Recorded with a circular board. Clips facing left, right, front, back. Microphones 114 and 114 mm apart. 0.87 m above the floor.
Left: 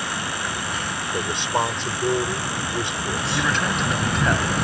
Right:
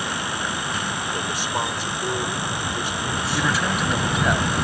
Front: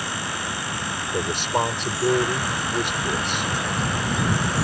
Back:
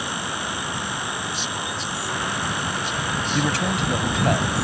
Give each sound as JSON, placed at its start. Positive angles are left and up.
{"t": 1.1, "sound": "a man speaking", "azimuth_deg": 25}
{"t": 3.4, "sound": "a man speaking", "azimuth_deg": -175}